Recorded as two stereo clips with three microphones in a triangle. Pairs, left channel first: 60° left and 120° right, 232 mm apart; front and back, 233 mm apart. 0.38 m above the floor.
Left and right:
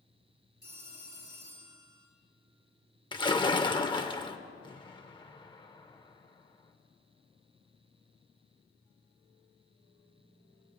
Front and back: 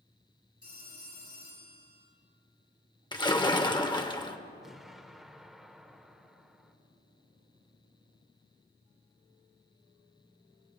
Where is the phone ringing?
165° right, 6.5 m.